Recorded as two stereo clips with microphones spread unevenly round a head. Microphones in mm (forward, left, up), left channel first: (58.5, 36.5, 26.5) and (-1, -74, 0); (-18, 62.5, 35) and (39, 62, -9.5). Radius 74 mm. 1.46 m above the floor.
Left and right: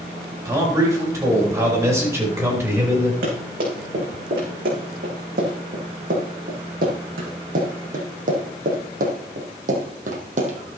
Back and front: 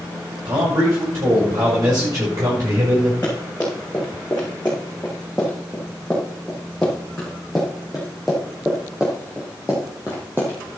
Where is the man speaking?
55° right, 6.5 m; by 3.1 s 45° right, 5.5 m.